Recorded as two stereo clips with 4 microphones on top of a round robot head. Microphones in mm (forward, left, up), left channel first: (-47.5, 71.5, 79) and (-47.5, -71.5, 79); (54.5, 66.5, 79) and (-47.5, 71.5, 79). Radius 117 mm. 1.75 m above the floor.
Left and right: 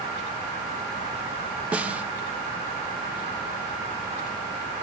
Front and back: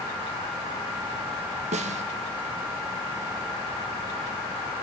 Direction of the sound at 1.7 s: 170° right.